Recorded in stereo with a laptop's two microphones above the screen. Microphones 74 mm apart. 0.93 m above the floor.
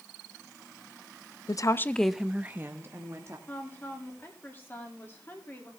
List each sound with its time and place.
1.5 s a woman speaking: 55° left (ahead or behind), 0.6 m; by 3.4 s 40° right (ahead or behind), 1.5 m
3.5 s a woman speaking: 30° left (ahead or behind), 2 m